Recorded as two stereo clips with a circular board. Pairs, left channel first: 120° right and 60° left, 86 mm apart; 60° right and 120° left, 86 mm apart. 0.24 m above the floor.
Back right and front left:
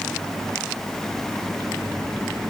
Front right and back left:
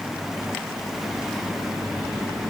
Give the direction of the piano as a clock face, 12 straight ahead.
No piano in this recording.